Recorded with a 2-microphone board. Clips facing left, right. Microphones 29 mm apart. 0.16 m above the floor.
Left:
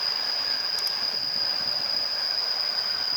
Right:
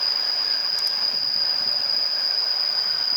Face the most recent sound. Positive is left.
turn(degrees=-35)  # may be behind; listen again after turning